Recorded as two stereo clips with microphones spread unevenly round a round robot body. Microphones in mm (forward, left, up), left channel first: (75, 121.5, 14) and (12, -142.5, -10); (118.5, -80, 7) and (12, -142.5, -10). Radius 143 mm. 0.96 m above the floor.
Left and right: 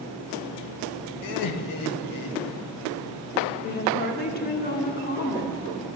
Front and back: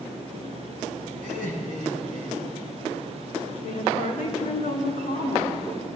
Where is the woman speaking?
20° left, 2 m.